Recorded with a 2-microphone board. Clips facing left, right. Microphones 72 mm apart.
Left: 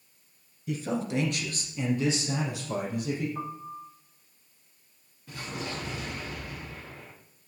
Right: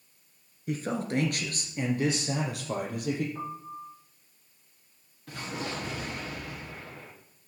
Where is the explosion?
70° right (ahead or behind), 4 m.